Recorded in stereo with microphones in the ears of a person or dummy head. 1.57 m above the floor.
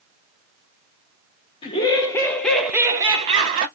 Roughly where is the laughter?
Left.